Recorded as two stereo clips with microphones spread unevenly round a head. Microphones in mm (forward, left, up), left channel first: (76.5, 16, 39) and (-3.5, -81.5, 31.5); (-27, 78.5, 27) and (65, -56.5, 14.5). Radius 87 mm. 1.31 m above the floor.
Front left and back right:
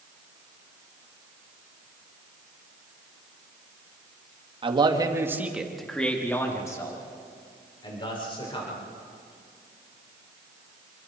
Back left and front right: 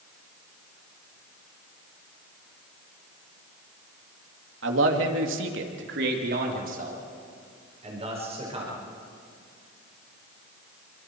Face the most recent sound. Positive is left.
turn(degrees=5)